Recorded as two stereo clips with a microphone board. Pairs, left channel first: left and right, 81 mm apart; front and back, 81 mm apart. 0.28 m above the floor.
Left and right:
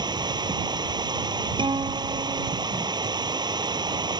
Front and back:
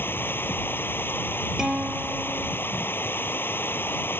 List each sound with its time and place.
0.0 s running water: 65° right
1.6 s a guitar: 100° right